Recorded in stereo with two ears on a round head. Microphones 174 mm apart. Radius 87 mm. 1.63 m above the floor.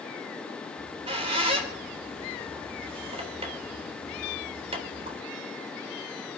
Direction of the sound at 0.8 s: 30° right (ahead or behind).